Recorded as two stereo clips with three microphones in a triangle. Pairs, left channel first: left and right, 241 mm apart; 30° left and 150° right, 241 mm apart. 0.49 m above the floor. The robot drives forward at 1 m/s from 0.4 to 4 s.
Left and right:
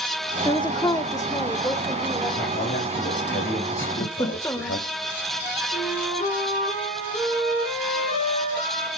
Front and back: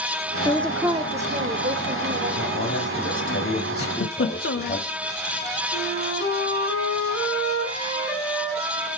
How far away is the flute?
About 4 m.